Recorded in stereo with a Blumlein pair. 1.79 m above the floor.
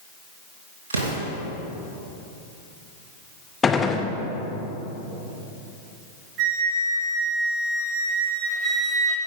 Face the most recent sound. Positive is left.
turn(degrees=-25)